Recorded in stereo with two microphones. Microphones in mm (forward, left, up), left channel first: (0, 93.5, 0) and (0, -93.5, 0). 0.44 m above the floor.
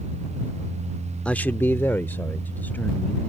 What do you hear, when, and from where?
1.2 s a man speaking: 5° left (ahead or behind); by 3.3 s 10° left (ahead or behind)